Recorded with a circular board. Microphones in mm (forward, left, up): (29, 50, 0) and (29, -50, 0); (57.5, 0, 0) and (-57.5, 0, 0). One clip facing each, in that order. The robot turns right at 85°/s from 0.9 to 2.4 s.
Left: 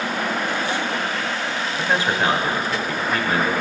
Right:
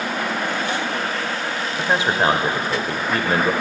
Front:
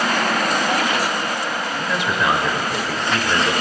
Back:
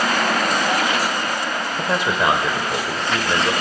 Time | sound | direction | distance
1.8 | a man speaking | 170° right | 1.2 m